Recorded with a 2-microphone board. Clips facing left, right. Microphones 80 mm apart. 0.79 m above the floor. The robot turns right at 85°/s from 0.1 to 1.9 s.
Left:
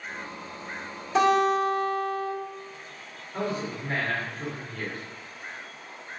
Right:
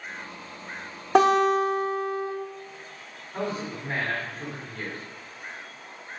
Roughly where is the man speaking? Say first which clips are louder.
Left 1 dB; centre.